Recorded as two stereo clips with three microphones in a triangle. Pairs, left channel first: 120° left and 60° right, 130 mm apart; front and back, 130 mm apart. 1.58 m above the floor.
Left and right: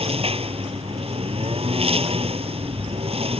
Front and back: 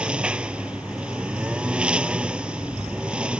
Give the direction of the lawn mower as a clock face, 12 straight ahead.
3 o'clock.